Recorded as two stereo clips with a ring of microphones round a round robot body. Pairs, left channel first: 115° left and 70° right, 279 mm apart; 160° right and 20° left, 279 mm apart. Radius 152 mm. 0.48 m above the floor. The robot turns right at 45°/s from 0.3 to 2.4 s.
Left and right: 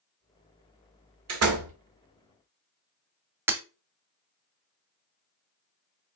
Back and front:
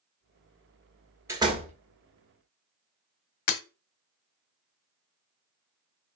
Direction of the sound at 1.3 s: 55° right.